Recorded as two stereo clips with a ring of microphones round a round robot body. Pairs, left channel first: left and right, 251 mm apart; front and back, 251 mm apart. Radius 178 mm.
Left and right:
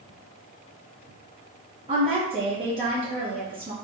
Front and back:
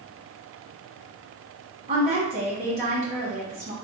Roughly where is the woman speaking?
Behind right.